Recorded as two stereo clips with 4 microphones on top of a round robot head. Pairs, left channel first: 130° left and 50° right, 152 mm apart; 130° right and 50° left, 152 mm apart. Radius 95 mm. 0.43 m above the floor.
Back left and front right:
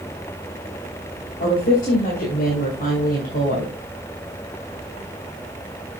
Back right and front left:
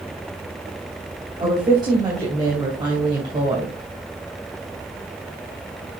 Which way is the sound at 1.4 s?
110° left.